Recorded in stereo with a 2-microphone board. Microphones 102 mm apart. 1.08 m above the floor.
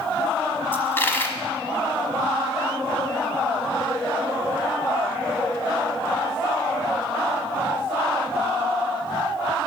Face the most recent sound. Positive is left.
turn(degrees=20)  # may be behind; listen again after turning